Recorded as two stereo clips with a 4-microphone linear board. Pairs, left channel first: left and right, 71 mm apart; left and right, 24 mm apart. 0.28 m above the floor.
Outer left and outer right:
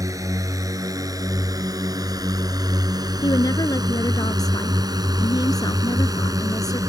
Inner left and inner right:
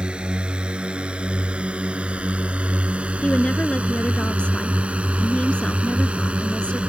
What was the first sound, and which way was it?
A drone, 50° right (ahead or behind).